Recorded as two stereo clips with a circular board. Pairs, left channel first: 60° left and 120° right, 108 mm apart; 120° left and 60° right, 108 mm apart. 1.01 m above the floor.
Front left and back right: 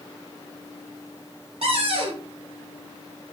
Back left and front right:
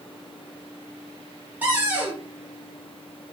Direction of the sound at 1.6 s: 130° right.